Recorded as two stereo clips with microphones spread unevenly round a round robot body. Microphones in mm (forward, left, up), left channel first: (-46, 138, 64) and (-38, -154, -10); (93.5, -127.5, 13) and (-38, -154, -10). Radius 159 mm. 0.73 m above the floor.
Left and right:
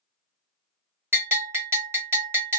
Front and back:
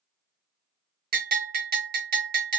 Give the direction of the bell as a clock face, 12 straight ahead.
6 o'clock.